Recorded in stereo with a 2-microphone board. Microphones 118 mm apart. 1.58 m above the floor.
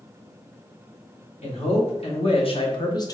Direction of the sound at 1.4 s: 65° left (ahead or behind).